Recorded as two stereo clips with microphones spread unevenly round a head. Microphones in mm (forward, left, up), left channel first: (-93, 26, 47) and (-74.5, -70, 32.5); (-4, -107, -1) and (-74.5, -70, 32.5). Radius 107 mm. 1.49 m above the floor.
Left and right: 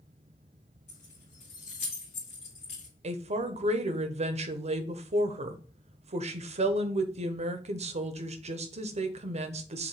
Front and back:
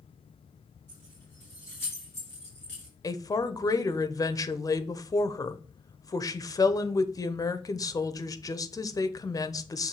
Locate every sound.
0.9 s keys jangling: 55° left, 1.9 m
3.0 s a woman speaking: 75° right, 0.8 m